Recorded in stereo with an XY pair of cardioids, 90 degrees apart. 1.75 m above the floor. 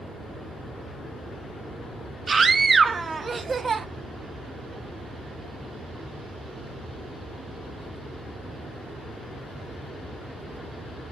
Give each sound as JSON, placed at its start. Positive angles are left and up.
{"t": 2.3, "sound": "a scream", "azimuth_deg": -35, "distance_m": 0.9}